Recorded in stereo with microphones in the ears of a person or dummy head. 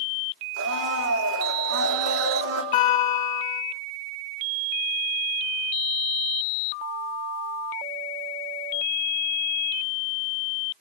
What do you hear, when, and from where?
0.6 s a blender: 75° right (ahead or behind), 3 m
2.7 s a guitar: 30° left (ahead or behind), 2 m